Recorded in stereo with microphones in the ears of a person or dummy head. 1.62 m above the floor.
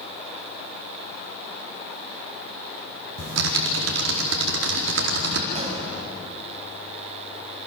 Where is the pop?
35° right (ahead or behind), 7 m.